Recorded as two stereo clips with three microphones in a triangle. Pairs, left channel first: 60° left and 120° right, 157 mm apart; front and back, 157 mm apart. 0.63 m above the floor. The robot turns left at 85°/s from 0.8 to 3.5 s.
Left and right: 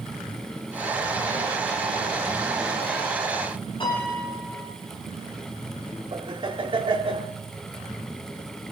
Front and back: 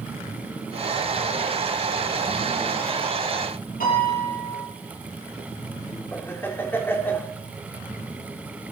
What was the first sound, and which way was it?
A piano, 5° left.